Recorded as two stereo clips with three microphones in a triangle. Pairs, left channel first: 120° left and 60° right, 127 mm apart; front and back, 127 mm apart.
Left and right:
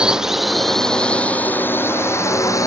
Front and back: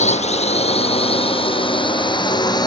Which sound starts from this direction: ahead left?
A drone, at 0.0 s.